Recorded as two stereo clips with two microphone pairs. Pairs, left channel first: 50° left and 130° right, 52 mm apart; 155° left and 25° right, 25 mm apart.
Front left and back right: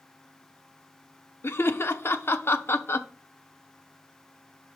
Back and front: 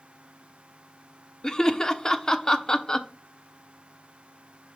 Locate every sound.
1.4 s laughter: 90° left, 0.7 m